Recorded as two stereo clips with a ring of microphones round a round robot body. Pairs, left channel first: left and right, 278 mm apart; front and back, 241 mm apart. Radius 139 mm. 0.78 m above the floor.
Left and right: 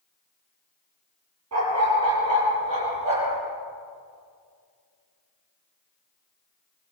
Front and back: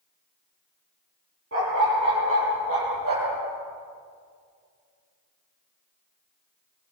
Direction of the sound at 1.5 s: 125° right.